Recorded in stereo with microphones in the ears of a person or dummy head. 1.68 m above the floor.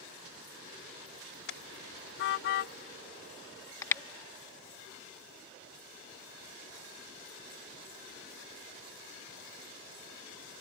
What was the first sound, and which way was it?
A car horn, 60° left (ahead or behind).